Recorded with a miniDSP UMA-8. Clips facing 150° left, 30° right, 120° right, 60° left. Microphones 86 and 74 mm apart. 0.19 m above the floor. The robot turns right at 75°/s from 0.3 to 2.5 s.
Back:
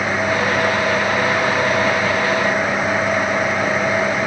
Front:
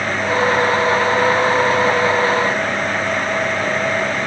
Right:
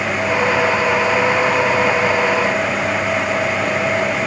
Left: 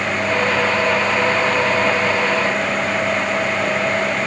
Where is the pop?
I don't hear a pop.